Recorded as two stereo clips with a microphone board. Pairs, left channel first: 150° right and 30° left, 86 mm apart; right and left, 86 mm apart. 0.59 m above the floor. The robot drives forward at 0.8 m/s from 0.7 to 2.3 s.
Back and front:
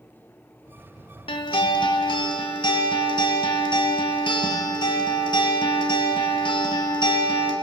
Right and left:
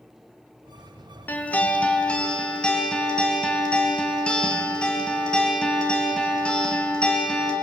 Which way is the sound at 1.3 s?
160° right.